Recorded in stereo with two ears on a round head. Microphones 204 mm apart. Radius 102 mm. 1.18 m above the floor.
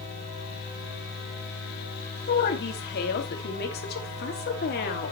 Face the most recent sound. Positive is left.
turn(degrees=45)  # may be behind; listen again after turning